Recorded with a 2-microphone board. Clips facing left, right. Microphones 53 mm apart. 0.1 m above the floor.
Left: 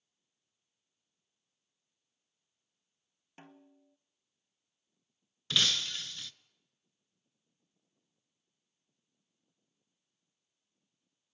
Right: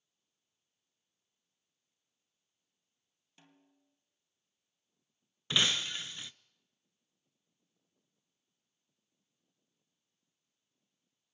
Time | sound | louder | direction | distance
3.4 | a snare drum | left 10 dB | 45° left (ahead or behind) | 1.4 m
5.5 | breaking glass | even | 20° right (ahead or behind) | 0.6 m